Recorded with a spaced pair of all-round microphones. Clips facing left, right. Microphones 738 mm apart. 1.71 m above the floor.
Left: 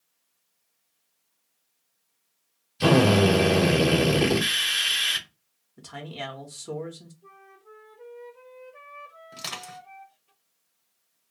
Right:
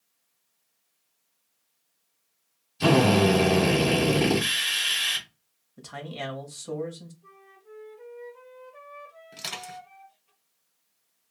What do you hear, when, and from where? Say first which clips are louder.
2.8 s a drill: left 1 dB; 15° left (ahead or behind), 0.9 m
5.8 s a man speaking: right 1 dB; centre (ahead or behind), 0.7 m
7.2 s a flute: even; 5° right (ahead or behind), 0.9 m
9.3 s crushing: even; 20° left (ahead or behind), 1.0 m